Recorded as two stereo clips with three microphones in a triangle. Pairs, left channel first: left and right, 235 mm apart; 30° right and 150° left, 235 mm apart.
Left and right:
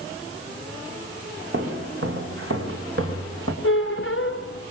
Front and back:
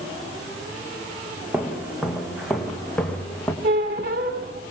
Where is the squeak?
115° left, 2 m.